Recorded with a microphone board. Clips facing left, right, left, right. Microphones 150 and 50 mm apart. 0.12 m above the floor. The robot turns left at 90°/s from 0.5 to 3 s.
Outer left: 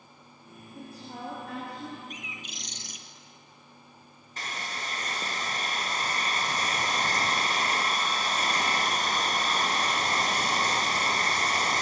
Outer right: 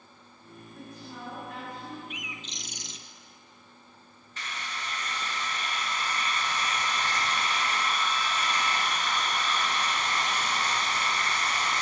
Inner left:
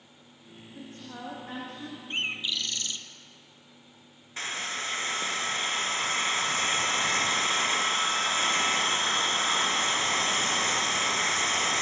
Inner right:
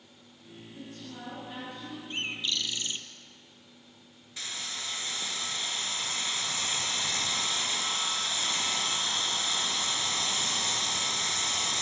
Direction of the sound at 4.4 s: 40° left (ahead or behind).